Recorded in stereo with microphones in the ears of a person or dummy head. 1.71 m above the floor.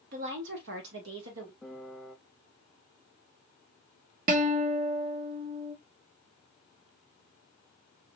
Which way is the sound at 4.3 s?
45° right (ahead or behind).